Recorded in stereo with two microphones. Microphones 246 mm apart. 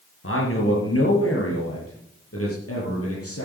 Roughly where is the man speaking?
Left.